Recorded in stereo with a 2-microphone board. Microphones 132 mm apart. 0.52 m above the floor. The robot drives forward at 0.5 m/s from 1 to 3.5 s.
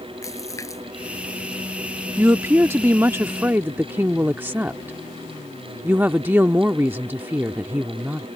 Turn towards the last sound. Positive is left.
turn(degrees=-15)  # may be behind; listen again after turning